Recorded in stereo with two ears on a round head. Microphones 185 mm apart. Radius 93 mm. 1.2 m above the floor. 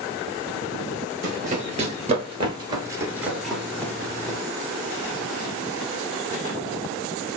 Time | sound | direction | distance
1.2 | running footsteps | 40° right (ahead or behind) | 1.6 m